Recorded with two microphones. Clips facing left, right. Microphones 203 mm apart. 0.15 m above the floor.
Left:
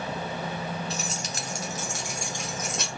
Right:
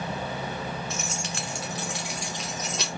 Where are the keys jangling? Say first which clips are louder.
Even; 35° left (ahead or behind), 0.9 m; by 2.9 s 55° left (ahead or behind), 1.8 m.